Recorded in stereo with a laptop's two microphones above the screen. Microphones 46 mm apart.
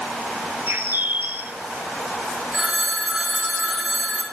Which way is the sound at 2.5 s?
20° right (ahead or behind).